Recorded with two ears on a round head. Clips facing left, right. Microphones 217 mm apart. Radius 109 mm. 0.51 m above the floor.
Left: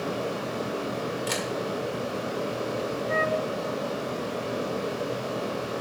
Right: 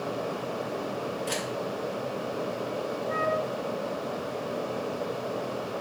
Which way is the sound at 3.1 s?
35° left (ahead or behind).